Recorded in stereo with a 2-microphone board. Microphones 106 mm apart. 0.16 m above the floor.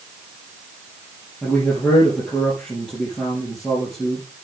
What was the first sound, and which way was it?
A man speaking, 5° left (ahead or behind).